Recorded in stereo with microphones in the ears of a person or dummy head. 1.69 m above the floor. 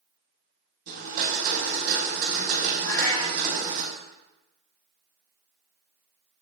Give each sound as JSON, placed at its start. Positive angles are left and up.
{"t": 0.9, "sound": "a blender", "side_deg": -55, "distance_m": 5.5}
{"t": 2.8, "sound": "a cat meowing", "side_deg": 20, "distance_m": 3.0}